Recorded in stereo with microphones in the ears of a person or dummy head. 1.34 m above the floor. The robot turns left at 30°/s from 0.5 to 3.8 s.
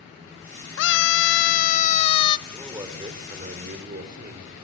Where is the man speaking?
15° right, 4 m; by 4.5 s 55° right, 4 m.